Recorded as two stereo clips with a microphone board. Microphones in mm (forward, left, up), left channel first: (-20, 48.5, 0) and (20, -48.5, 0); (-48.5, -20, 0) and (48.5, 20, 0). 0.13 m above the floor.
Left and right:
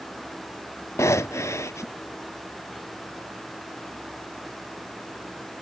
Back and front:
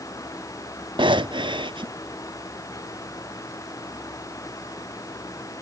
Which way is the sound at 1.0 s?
55° left.